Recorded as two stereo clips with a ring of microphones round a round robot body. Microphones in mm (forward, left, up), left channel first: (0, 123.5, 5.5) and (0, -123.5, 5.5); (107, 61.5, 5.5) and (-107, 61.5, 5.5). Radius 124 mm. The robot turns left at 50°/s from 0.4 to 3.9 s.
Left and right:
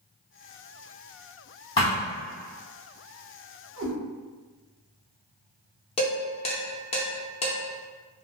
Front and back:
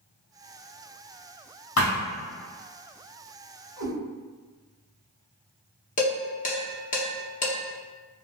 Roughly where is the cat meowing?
Ahead right.